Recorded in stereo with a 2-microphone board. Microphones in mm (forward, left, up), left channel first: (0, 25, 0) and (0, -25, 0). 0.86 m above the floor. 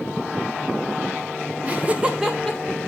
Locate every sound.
1.6 s laughter: 35° right (ahead or behind), 0.9 m; by 2.8 s 5° left (ahead or behind), 1.3 m